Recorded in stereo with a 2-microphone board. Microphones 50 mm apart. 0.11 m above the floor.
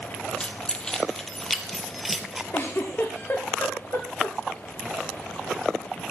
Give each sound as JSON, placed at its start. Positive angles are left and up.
{"t": 0.4, "sound": "keys jangling", "side_deg": 25, "distance_m": 2.5}
{"t": 2.5, "sound": "a giggle", "side_deg": 55, "distance_m": 4.5}